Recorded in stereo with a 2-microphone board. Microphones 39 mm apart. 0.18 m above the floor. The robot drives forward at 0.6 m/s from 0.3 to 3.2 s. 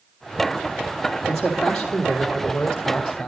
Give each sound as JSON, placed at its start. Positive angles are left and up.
{"t": 1.3, "sound": "a man speaking", "side_deg": 15, "distance_m": 4.5}